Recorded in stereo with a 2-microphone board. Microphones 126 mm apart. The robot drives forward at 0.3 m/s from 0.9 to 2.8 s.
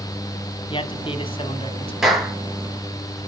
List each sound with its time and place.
0.7 s a man speaking: 45° left (ahead or behind), 1.4 m
2.0 s a clap: 5° right (ahead or behind), 4.5 m